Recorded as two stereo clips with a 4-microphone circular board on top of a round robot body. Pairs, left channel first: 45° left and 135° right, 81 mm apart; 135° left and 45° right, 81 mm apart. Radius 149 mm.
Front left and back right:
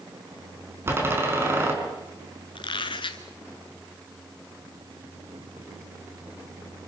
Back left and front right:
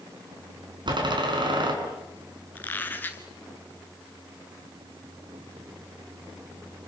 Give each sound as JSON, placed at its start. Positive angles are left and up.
{"t": 0.9, "sound": "a door slam", "azimuth_deg": -70, "distance_m": 5.0}
{"t": 2.5, "sound": "a squeak", "azimuth_deg": 65, "distance_m": 0.6}